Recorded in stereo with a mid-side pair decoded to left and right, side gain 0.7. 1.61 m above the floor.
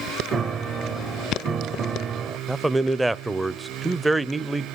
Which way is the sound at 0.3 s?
35° right.